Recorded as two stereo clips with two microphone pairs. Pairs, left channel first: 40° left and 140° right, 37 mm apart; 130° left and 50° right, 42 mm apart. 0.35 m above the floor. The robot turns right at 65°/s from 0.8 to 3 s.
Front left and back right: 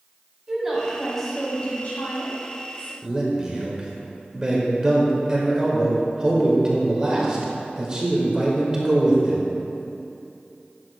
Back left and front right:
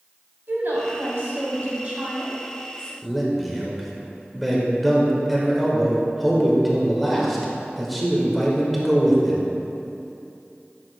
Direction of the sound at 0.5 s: 65° right.